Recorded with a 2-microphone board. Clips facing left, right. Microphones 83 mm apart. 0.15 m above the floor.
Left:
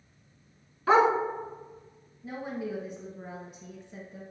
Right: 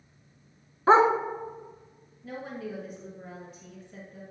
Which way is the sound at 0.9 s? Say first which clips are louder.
Right 2 dB; 30° right (ahead or behind).